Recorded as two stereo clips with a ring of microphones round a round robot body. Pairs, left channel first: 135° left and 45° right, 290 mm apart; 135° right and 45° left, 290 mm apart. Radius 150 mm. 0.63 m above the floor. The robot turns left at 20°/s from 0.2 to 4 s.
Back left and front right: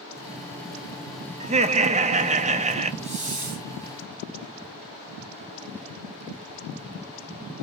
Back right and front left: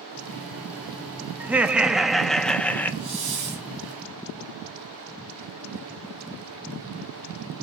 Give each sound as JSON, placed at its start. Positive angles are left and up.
{"t": 1.4, "sound": "laughter", "azimuth_deg": -30, "distance_m": 0.6}
{"t": 3.0, "sound": "a hiss", "azimuth_deg": 25, "distance_m": 5.0}